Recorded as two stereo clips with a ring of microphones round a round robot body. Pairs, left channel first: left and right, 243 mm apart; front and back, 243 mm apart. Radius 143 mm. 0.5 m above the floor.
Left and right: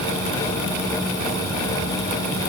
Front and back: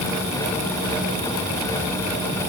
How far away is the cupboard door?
I don't hear a cupboard door.